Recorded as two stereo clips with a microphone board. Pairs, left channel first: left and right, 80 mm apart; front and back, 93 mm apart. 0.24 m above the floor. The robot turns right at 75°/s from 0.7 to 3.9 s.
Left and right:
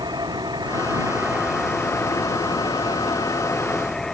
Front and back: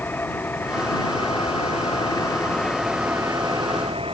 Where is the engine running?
70° right; by 4.2 s 170° left.